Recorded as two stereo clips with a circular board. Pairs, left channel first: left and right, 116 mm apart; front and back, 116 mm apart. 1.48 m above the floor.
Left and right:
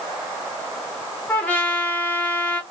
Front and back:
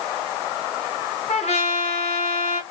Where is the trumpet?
15° left, 1.1 m.